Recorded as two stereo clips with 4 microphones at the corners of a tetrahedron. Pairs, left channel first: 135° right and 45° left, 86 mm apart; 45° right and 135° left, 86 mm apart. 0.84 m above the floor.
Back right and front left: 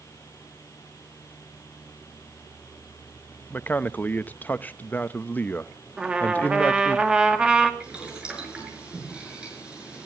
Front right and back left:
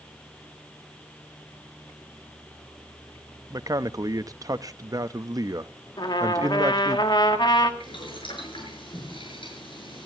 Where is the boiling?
35° right, 7 m.